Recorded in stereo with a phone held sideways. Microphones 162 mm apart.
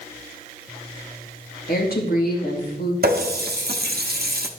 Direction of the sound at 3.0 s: 75° right (ahead or behind).